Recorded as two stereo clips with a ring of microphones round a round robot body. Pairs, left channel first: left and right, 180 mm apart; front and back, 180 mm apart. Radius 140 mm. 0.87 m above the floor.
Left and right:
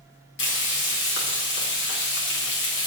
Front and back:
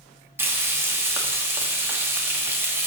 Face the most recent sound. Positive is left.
turn(degrees=100)